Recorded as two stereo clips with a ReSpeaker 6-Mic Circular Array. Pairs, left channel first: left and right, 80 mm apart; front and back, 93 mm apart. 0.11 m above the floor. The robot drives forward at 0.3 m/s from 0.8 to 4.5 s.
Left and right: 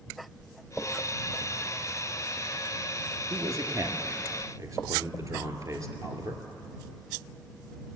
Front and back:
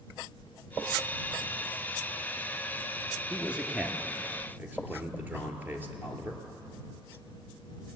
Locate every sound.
3.3 s a man speaking: 100° right, 1.6 m; by 6.4 s 115° right, 1.7 m